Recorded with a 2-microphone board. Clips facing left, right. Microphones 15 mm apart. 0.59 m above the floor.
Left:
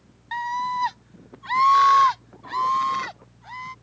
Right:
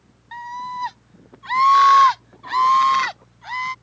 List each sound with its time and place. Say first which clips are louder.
0.3 s a scream: left 4 dB; 20° left (ahead or behind); by 3.7 s 45° right (ahead or behind)